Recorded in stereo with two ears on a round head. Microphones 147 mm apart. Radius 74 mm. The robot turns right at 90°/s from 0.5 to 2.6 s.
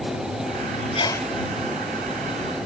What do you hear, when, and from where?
0.9 s a sneeze: 145° left; by 1.3 s 175° left